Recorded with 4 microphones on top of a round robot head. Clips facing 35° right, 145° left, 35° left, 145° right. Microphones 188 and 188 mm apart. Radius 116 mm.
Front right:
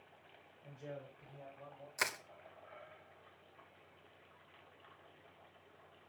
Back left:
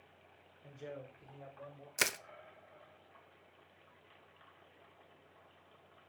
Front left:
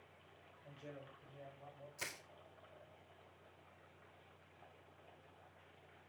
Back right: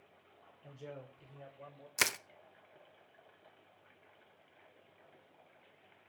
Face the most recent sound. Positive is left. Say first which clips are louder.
# back left 4 dB, back right 15 dB
turn(degrees=-155)